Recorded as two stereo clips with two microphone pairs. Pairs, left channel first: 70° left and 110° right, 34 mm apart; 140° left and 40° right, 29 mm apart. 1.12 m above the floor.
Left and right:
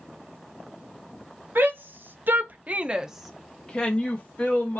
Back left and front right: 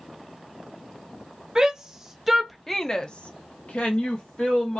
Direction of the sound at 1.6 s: 105° right.